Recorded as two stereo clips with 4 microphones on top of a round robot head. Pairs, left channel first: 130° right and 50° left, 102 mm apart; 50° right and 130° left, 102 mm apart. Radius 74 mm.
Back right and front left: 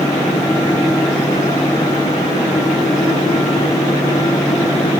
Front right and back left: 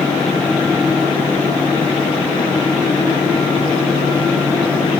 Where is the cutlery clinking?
No cutlery clinking in this recording.